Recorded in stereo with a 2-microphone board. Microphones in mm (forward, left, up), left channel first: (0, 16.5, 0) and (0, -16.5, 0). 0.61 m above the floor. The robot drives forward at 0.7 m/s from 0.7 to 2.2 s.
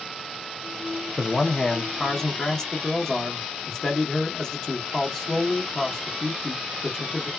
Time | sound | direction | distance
1.2 | a man speaking | 20° left (ahead or behind) | 0.5 m